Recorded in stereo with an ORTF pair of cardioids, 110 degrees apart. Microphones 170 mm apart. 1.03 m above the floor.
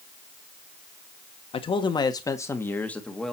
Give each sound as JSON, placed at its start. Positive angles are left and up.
{"t": 1.5, "sound": "a man speaking", "azimuth_deg": 35, "distance_m": 1.5}